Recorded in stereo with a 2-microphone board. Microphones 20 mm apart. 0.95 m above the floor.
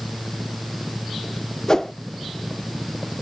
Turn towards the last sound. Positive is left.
turn(degrees=25)  # may be behind; listen again after turning